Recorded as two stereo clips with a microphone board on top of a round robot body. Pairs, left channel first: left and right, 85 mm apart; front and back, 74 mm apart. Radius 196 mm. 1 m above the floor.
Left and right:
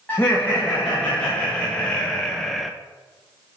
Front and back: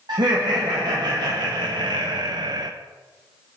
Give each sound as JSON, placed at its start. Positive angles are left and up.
{"t": 0.1, "sound": "laughter", "azimuth_deg": 165, "distance_m": 1.8}